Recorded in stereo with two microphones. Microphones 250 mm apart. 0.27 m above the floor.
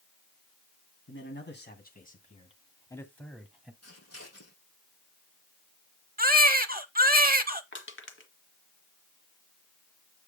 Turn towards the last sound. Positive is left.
turn(degrees=50)  # may be behind; listen again after turning